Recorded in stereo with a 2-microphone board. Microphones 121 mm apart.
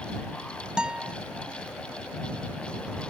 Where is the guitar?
5° right (ahead or behind).